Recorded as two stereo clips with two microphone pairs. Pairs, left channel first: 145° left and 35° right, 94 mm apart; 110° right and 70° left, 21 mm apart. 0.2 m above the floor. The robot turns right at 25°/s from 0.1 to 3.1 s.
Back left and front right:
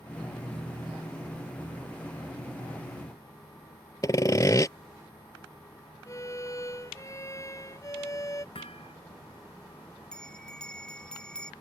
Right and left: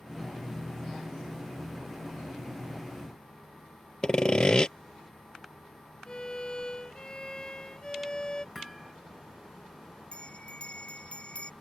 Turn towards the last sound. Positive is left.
turn(degrees=-135)